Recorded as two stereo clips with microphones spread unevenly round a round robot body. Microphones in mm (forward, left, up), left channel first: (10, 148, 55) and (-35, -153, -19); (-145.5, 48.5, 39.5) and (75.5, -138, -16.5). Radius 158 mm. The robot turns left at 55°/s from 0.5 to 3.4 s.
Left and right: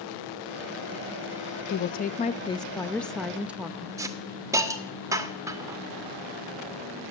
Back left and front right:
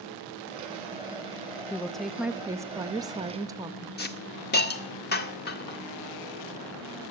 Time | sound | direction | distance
1.7 | a woman speaking | 35° left | 0.5 m
4.0 | a hiss | 160° right | 0.9 m